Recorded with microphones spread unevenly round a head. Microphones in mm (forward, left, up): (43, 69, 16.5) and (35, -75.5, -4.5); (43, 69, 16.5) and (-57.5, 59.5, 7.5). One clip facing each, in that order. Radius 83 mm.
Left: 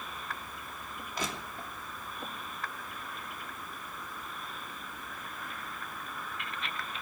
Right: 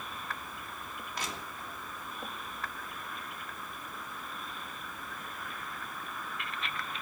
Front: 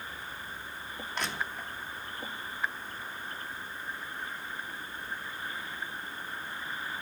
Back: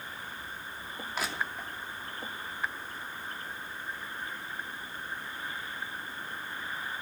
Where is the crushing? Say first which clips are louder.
Left 4 dB, back 1 dB; 100° left, 3 m.